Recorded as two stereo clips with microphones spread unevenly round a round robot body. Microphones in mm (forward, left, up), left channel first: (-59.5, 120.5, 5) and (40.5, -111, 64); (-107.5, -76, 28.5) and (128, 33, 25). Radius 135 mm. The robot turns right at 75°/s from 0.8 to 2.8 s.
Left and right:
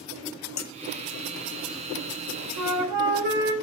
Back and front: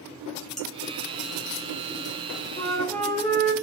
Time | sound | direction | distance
0.6 | dishes clattering | 115° left | 1.8 m
2.6 | a flute | 90° right | 2 m